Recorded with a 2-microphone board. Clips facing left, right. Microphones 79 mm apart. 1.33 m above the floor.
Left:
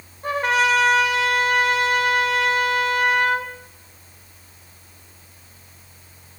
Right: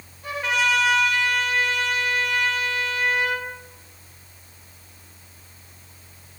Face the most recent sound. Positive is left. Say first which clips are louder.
# left 4 dB
turn(degrees=45)  # may be behind; listen again after turning